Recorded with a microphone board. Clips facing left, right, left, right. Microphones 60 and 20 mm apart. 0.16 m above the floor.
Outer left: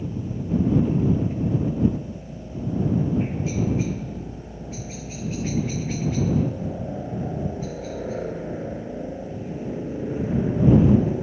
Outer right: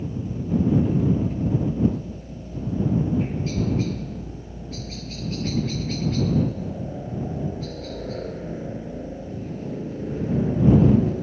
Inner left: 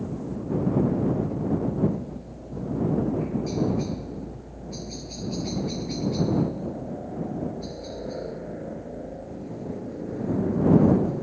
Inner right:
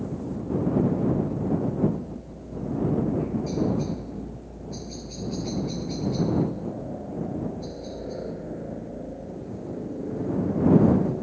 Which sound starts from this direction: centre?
A helicopter, at 0.0 s.